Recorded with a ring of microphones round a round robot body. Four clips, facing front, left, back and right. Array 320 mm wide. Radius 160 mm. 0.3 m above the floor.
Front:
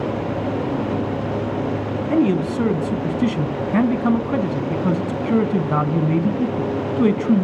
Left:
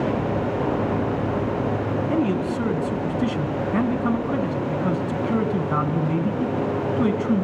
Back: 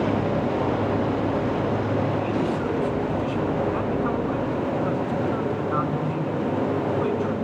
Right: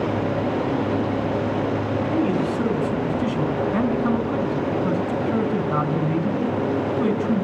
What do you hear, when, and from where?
2.1 s a man speaking: straight ahead, 2.5 m